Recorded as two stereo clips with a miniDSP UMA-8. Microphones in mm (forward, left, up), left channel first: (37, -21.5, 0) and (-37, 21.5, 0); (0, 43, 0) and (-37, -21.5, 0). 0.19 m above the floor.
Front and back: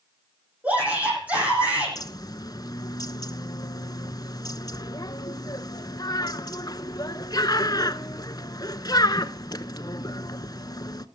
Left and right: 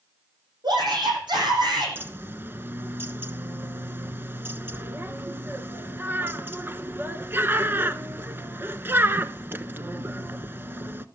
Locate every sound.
0.6 s a shout: 135° right, 9.5 m
1.9 s a bird: 60° right, 0.8 m